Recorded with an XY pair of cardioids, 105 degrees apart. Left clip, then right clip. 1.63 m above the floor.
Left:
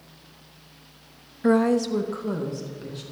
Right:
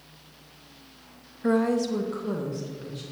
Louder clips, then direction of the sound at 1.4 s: Left 3 dB; 25° left.